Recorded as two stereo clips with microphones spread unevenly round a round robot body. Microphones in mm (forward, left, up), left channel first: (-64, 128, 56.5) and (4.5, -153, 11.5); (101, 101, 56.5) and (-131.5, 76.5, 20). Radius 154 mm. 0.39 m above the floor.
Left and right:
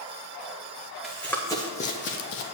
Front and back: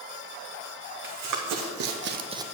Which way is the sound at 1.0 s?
170° right.